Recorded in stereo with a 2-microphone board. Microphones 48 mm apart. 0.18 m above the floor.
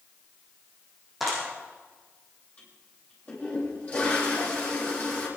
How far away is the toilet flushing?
About 7.5 m.